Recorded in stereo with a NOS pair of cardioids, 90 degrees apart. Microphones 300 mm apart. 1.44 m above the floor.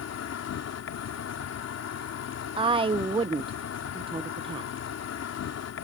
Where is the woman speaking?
15° right.